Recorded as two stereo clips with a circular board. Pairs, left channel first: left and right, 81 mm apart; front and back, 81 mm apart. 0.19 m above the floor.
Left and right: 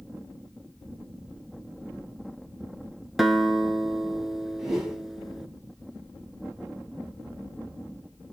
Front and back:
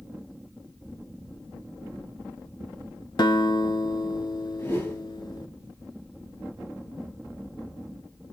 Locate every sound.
3.2 s a guitar: straight ahead, 0.5 m
4.6 s a whoosh: 5° right, 1.3 m